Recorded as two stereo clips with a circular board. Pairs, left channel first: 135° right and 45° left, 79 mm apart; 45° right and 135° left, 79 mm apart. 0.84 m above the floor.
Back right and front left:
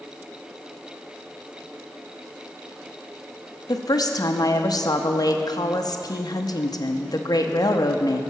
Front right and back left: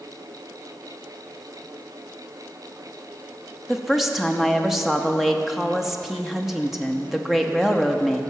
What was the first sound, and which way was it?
A woman speaking, 140° right.